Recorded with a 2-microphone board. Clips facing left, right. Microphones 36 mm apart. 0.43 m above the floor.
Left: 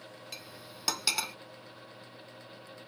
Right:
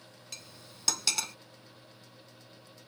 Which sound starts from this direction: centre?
Cutlery clinking, at 0.3 s.